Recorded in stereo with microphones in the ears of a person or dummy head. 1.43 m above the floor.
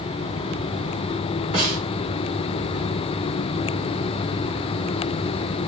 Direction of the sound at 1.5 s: 45° right (ahead or behind).